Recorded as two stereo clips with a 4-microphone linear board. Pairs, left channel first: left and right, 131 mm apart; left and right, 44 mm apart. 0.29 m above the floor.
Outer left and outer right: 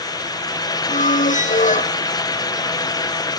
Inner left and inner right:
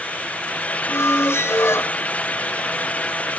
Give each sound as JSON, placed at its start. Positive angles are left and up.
{"t": 0.9, "sound": "a squeak", "side_deg": 80, "distance_m": 1.4}